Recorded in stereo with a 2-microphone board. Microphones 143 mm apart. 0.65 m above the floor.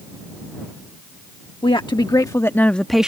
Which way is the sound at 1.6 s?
35° left (ahead or behind).